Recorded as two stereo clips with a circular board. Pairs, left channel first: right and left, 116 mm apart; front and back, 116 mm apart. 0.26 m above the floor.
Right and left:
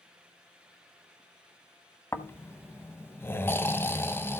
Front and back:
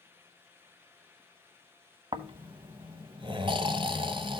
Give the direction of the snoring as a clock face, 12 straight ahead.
5 o'clock.